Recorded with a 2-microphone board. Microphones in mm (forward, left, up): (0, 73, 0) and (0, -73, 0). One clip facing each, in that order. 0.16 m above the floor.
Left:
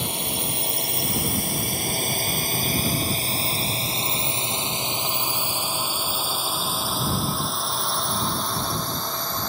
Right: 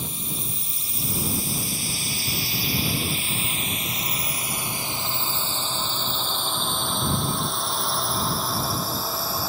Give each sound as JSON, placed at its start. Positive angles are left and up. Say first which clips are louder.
{"t": 0.0, "sound": "a drone", "louder": "left 5 dB", "side_deg": 75}